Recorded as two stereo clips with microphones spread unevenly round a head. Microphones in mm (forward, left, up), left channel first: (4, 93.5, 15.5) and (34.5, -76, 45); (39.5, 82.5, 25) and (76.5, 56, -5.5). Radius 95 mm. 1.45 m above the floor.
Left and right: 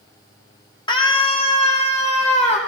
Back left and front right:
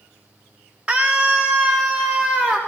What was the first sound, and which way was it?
A scream, 35° left.